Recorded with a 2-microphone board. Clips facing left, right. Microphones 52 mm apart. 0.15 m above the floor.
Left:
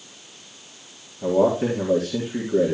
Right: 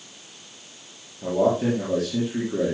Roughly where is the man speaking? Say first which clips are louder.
Left 2 dB; centre.